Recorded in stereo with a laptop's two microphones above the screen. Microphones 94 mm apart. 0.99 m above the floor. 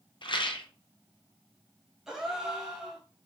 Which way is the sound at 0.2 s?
60° left (ahead or behind).